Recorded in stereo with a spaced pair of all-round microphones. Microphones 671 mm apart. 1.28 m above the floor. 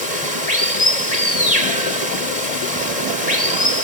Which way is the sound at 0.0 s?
65° left (ahead or behind).